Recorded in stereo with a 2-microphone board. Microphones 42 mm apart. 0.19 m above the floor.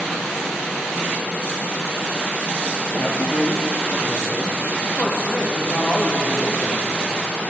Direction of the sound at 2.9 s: 40° left (ahead or behind).